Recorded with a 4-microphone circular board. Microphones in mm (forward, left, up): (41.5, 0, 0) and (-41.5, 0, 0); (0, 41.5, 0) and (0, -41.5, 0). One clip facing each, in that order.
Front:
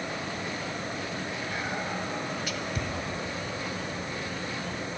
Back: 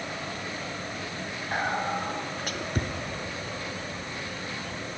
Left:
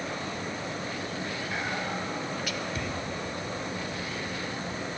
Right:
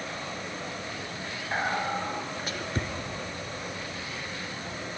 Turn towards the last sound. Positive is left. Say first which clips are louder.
# back 8 dB, right 6 dB
turn(degrees=-140)